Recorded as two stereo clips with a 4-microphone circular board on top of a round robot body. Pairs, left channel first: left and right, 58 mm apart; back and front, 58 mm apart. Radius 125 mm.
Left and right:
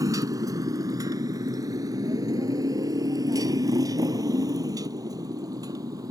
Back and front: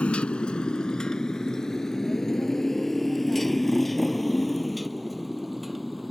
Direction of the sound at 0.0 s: 110° right.